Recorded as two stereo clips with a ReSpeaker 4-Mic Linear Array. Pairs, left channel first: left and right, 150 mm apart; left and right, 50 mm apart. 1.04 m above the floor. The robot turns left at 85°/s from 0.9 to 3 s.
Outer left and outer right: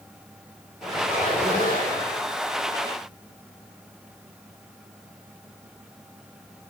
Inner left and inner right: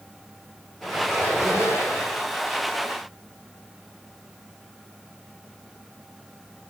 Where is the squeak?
Straight behind, 8.5 m; by 2.2 s 70° left, 8.5 m.